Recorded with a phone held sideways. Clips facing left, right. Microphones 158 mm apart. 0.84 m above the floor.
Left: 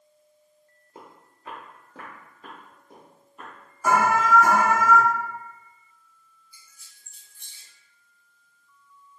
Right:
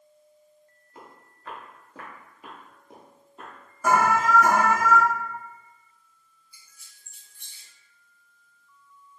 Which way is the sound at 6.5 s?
65° right (ahead or behind).